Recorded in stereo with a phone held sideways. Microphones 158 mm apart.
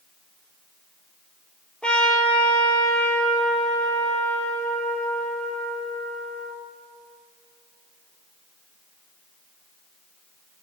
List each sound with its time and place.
1.8 s a trumpet: 5° left (ahead or behind), 4 m